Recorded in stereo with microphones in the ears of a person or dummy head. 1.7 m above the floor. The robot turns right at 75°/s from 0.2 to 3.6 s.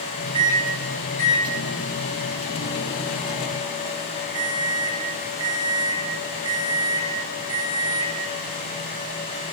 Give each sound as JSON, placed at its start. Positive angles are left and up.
{"t": 0.3, "sound": "a microwave", "azimuth_deg": -35, "distance_m": 1.4}